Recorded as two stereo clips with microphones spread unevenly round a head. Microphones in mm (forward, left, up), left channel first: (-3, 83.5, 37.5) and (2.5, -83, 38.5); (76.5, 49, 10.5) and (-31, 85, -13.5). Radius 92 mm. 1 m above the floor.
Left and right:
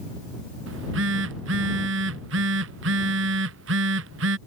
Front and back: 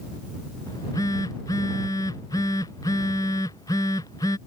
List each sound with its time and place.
0.7 s a phone buzzing: 90° right